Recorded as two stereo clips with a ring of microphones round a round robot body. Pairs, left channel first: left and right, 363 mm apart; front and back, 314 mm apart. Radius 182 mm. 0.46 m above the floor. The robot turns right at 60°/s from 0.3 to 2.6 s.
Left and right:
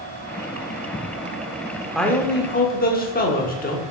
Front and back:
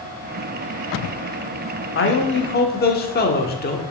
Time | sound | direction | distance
1.9 | a man speaking | straight ahead | 1.1 m